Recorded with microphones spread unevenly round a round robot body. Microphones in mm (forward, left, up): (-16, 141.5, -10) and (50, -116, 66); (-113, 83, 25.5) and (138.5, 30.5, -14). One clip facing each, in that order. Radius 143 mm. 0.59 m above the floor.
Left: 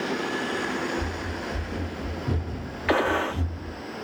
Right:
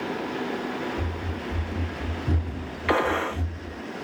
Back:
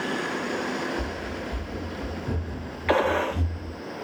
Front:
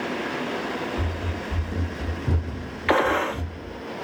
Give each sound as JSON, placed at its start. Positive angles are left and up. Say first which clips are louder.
{"t": 1.0, "sound": "running footsteps", "louder": "left 1 dB, front 1 dB", "azimuth_deg": -20, "distance_m": 1.2}
{"t": 2.9, "sound": "a gunshot", "louder": "left 1 dB, front 1 dB", "azimuth_deg": 25, "distance_m": 0.6}